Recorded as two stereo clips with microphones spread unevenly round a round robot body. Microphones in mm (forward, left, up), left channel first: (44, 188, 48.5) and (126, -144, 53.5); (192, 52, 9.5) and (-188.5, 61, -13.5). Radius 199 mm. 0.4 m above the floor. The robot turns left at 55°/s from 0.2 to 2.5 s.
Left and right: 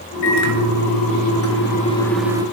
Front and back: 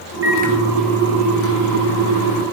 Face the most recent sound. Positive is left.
turn(degrees=-5)